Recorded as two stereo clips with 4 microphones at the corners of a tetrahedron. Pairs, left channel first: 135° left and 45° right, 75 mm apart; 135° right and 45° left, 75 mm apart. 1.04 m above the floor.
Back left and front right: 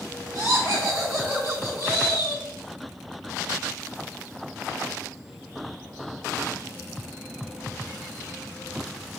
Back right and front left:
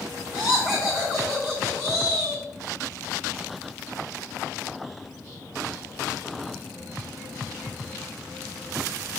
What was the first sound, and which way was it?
Laughter, 45° right.